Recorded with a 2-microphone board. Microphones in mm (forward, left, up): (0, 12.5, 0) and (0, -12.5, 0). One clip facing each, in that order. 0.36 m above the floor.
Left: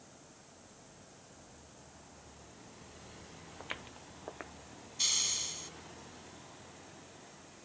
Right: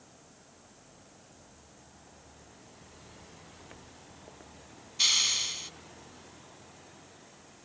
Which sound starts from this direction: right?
A hiss, at 5.0 s.